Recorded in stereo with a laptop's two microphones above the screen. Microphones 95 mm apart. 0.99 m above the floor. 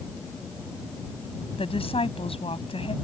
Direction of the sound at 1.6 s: 85° left.